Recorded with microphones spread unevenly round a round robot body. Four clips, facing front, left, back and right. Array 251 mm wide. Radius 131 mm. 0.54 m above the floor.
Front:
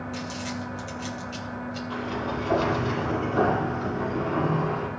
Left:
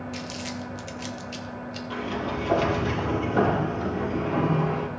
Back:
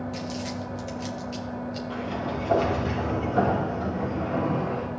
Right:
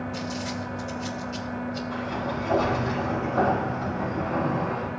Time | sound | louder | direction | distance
0.1 | crumpling | right 3 dB, back 1 dB | 115° left | 2.5 m
1.9 | a sliding door | left 3 dB, front 2 dB | 90° left | 6 m